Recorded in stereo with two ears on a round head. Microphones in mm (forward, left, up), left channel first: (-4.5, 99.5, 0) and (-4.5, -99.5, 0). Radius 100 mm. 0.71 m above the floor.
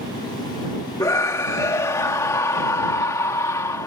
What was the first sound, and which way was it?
A scream, 15° left (ahead or behind).